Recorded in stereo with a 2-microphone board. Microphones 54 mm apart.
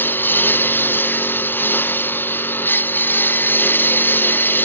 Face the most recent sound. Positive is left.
turn(degrees=40)  # may be behind; listen again after turning